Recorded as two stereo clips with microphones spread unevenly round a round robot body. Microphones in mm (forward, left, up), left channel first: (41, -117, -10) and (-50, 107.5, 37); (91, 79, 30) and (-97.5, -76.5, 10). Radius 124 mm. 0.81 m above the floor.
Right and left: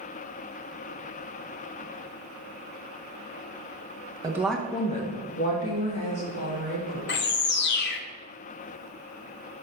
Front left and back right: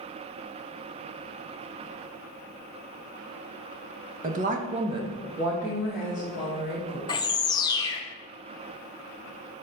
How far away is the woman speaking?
About 0.7 m.